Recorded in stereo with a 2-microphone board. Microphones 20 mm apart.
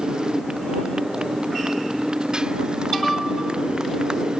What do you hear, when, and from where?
0.0 s a motorcycle: 45° right (ahead or behind)